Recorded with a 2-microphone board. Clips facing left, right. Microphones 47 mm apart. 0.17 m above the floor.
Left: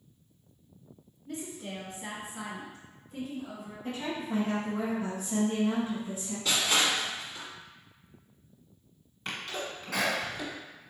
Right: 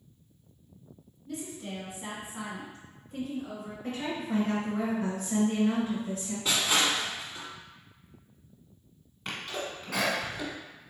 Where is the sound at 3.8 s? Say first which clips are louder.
Right 1 dB; 55° right (ahead or behind), 2.0 m.